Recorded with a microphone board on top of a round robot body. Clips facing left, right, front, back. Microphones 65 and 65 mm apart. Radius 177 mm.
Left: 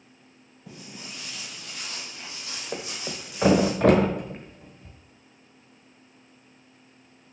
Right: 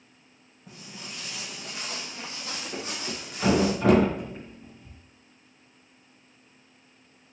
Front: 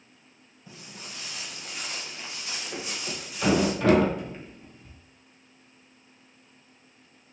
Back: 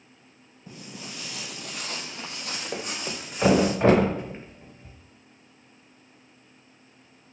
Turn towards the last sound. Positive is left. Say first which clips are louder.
# left 3 dB, back 3 dB
turn(degrees=120)